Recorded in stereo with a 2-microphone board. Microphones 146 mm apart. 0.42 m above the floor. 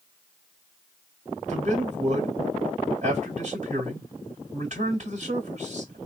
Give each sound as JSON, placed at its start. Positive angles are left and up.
{"t": 1.5, "sound": "a man speaking", "side_deg": -55, "distance_m": 2.0}